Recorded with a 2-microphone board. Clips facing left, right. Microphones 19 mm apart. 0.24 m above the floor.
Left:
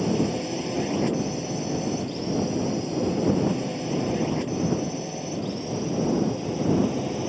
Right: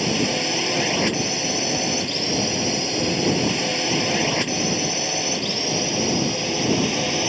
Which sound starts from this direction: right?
A drone, at 0.0 s.